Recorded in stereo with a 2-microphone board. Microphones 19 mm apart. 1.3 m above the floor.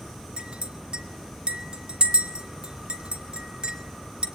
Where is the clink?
80° right, 1.9 m.